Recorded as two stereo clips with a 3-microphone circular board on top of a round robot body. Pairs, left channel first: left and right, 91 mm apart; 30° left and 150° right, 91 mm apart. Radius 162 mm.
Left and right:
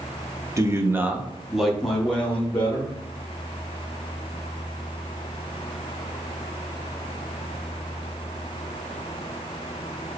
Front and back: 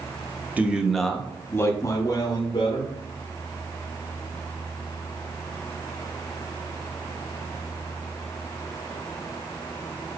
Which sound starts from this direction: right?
A man speaking, at 0.6 s.